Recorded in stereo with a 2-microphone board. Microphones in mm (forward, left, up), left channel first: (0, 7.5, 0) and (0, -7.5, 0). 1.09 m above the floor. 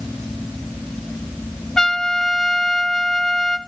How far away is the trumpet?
About 0.9 m.